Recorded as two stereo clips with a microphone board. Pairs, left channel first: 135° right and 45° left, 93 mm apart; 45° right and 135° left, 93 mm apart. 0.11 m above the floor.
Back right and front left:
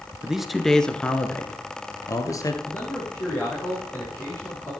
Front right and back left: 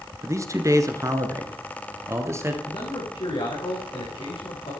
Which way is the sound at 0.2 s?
120° left.